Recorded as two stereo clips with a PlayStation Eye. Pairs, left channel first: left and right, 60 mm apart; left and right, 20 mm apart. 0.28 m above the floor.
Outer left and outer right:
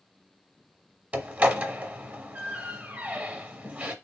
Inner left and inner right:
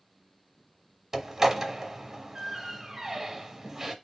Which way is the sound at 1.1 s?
25° right (ahead or behind).